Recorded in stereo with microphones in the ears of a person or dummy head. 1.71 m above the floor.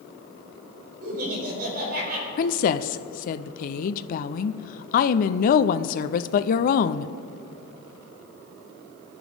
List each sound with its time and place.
1.0 s laughter: 50° right (ahead or behind), 6.5 m; by 2.3 s 55° right (ahead or behind), 7 m
2.4 s a woman speaking: 50° left (ahead or behind), 0.6 m